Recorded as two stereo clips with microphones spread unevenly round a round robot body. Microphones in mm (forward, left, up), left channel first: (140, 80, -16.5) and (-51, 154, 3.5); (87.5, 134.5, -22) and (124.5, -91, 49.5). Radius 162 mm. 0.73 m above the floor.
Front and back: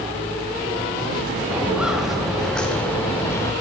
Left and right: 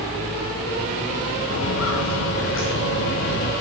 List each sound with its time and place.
1.5 s footsteps: 75° left, 5 m; by 3.5 s 55° left, 4.5 m